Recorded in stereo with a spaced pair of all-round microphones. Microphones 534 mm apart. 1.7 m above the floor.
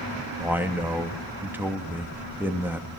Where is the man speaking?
5° right (ahead or behind), 3 m.